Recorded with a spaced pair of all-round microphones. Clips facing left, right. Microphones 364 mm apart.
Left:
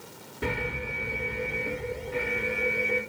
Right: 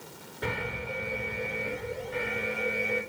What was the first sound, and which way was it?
An alarm, 40° left (ahead or behind).